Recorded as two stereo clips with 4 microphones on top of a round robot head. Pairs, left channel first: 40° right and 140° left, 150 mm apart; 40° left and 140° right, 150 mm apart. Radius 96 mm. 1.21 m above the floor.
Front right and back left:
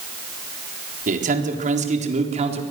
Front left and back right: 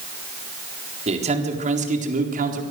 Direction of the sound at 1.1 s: 175° left.